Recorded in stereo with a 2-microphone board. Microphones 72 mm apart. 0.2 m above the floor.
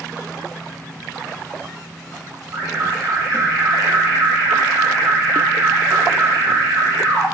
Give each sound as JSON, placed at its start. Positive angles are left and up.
{"t": 2.5, "sound": "an alarm", "side_deg": -45, "distance_m": 1.7}